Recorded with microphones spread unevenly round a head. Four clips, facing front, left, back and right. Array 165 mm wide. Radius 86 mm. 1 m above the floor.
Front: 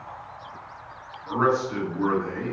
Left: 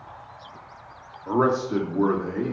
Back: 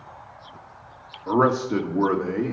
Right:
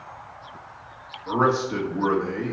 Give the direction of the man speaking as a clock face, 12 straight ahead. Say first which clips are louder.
Even, back 3 dB; 7 o'clock.